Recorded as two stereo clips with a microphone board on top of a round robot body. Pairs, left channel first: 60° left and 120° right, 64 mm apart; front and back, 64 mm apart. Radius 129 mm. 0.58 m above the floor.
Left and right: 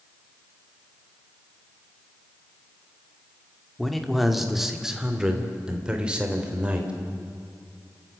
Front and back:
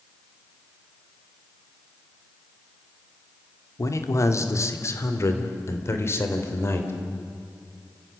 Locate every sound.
3.8 s a man speaking: 30° right, 2 m; by 6.9 s 50° right, 3.5 m